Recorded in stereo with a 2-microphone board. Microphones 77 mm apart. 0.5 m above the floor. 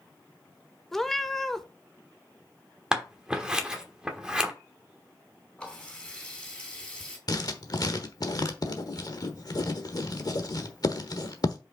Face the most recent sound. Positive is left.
turn(degrees=55)  # may be behind; listen again after turning